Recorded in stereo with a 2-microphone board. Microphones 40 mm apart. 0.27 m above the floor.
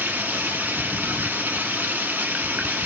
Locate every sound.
0.0 s running water: 55° right (ahead or behind), 1.2 m